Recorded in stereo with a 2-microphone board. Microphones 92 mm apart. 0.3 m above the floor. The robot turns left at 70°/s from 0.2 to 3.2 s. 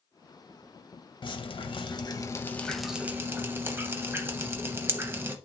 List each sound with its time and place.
1.2 s dripping: 110° left, 0.6 m; by 5.4 s 25° right, 0.6 m